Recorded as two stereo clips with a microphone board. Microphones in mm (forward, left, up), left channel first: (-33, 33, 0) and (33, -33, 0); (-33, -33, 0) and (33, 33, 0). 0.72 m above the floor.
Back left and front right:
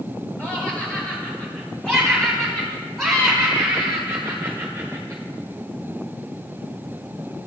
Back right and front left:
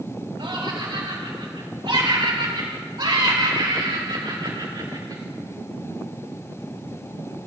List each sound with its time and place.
0.4 s laughter: 65° left, 4.5 m; by 5.2 s 15° left, 3 m